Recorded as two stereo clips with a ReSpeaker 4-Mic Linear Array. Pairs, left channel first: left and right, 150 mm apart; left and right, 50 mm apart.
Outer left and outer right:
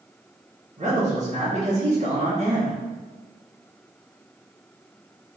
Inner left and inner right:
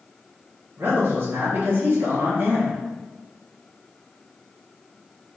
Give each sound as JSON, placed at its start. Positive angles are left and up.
{"t": 0.8, "sound": "a man speaking", "side_deg": -50, "distance_m": 1.5}